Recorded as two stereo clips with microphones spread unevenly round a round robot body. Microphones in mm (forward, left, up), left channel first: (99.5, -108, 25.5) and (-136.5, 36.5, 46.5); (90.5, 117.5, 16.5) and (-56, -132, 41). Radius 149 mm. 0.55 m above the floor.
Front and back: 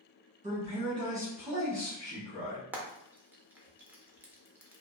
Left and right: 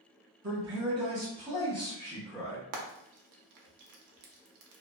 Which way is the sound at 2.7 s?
125° right.